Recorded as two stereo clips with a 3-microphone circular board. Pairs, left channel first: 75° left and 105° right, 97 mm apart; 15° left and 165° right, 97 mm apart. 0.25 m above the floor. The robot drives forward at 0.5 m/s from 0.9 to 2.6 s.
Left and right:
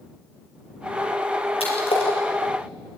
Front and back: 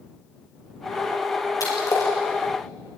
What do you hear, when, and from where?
1.6 s a splash: 70° left, 6 m